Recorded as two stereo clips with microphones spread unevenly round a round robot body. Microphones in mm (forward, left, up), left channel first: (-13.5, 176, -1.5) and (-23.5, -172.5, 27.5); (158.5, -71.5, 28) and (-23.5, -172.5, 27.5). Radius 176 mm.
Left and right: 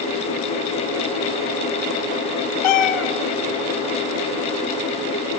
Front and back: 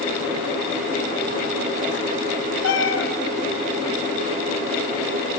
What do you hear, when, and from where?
2.6 s a cat meowing: 80° left, 3 m